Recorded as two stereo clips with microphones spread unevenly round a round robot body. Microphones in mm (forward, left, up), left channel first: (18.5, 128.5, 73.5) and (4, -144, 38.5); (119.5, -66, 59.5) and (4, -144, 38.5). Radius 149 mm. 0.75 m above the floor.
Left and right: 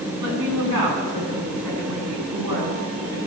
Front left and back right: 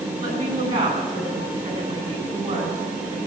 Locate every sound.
0.2 s a woman speaking: 120° right, 8 m; by 3.2 s 110° right, 8 m